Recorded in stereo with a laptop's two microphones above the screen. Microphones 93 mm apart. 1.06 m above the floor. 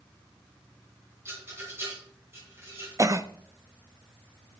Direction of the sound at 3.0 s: 35° right (ahead or behind).